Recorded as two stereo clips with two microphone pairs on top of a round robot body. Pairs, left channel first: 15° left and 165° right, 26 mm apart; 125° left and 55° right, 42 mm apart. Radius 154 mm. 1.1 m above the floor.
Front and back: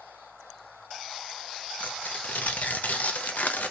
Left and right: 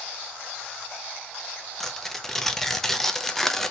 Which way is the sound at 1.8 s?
40° left.